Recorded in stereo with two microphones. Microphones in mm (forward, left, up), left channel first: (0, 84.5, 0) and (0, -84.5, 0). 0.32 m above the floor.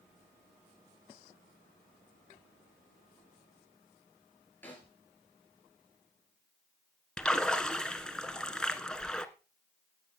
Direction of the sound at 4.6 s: 10° left (ahead or behind).